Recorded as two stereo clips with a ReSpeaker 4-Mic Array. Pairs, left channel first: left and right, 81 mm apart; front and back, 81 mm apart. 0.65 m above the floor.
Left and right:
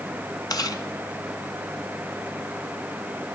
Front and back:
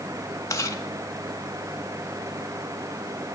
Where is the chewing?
50° left, 1.7 m.